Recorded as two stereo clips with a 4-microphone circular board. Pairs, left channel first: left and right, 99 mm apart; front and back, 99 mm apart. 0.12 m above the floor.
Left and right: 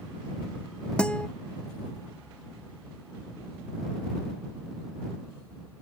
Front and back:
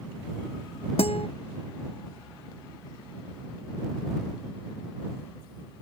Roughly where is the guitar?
Ahead.